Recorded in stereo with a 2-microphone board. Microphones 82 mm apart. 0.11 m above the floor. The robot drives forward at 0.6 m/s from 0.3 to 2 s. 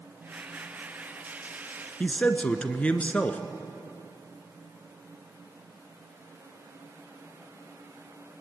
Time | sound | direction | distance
2.0 | a man speaking | 15° left (ahead or behind) | 1.1 m